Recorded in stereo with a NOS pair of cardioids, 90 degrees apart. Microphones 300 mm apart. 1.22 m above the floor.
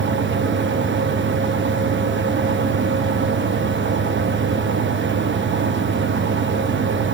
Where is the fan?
40° right, 1.0 m.